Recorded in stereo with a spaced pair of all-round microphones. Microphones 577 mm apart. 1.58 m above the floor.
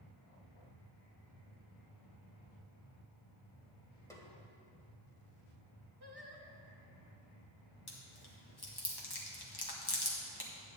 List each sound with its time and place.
4.1 s a snare drum: 5° left (ahead or behind), 1.8 m
6.0 s singing: 45° right (ahead or behind), 1.3 m
7.9 s chewing: 40° left (ahead or behind), 1.6 m